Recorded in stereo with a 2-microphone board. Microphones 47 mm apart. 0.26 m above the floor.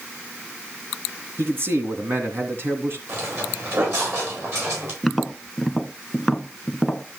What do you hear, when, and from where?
1.4 s a man speaking: 55° right (ahead or behind), 2.5 m
3.1 s footsteps: 60° right (ahead or behind), 8 m; by 4.9 s 65° right (ahead or behind), 9.5 m
5.0 s tapping: centre (ahead or behind), 0.6 m